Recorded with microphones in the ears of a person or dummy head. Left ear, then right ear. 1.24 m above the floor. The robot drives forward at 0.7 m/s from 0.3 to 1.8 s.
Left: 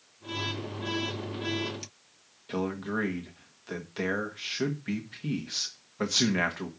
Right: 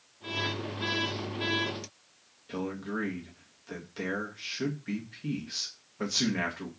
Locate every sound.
2.5 s a man speaking: 25° left (ahead or behind), 1.5 m